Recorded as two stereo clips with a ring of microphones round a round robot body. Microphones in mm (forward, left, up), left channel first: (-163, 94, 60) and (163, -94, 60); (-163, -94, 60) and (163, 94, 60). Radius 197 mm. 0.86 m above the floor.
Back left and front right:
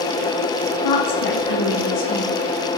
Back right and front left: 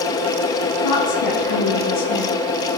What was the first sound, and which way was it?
A woman speaking, straight behind.